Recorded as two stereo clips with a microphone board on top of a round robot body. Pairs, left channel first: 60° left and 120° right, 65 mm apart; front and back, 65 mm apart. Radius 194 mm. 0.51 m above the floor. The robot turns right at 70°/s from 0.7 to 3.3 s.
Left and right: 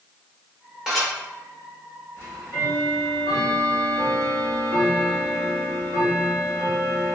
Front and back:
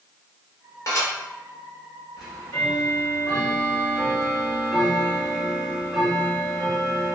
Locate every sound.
0.9 s dishes clattering: 40° right, 1.9 m; by 1.1 s 20° right, 1.9 m
2.2 s ticking: 5° left, 1.5 m; by 7.2 s 85° left, 1.5 m